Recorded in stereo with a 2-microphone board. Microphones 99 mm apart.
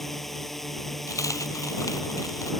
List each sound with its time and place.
0.0 s a drone: 5° left (ahead or behind)
1.1 s a dropped coin: 35° left (ahead or behind)